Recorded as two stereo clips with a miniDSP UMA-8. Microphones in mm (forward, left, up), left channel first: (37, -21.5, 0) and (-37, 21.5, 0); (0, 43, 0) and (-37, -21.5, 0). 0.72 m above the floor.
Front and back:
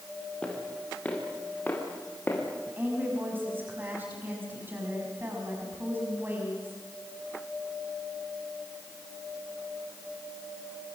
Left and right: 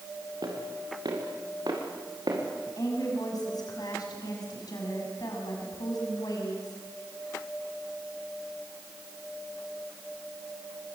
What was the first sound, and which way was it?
Footsteps, 105° right.